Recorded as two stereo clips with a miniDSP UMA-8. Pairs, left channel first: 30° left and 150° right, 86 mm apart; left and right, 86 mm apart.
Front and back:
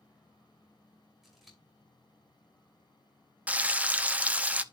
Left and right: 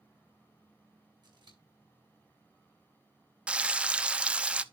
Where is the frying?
130° right, 0.6 m.